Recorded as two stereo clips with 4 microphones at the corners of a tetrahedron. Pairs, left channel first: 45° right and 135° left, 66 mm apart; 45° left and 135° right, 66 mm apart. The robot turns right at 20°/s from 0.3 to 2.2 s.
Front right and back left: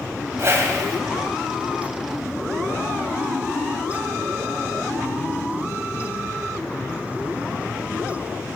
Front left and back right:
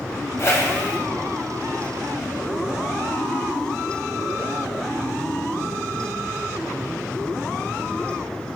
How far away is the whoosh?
About 3.5 m.